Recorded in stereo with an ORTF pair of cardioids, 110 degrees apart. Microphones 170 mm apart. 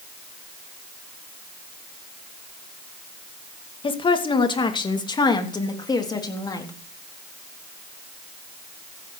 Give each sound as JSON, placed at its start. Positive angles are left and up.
{"t": 3.8, "sound": "a woman speaking", "azimuth_deg": 30, "distance_m": 2.5}